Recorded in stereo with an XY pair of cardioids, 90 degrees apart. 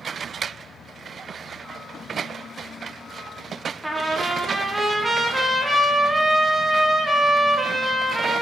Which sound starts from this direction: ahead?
A trumpet, at 3.8 s.